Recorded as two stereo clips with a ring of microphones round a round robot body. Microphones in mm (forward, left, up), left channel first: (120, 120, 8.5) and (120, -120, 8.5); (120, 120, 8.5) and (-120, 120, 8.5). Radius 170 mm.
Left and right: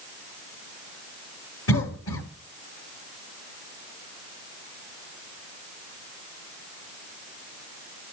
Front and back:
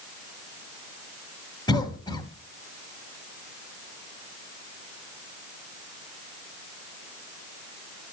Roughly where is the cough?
Left.